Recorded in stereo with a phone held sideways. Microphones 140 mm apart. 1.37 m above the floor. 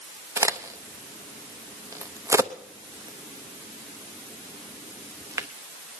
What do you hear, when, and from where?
0.4 s a crack: 20° right (ahead or behind), 0.6 m